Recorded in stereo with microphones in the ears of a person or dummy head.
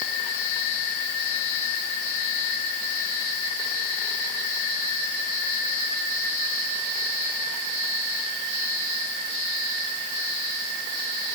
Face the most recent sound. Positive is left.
No sound to turn to.